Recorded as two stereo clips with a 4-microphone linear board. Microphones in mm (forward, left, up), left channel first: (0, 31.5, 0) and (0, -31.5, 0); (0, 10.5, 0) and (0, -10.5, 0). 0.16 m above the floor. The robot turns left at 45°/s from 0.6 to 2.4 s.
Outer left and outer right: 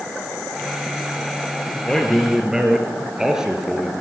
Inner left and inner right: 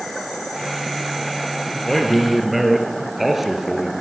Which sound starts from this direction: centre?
A man speaking, at 1.9 s.